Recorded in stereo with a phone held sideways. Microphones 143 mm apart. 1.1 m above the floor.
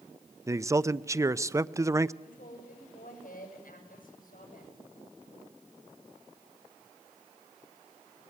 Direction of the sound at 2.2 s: 80° left.